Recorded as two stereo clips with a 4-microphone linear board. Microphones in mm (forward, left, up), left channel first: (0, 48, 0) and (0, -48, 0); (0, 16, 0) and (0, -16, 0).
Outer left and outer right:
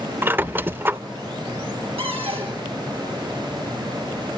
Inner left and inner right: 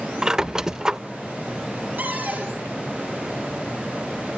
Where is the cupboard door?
75° right (ahead or behind), 6.5 m.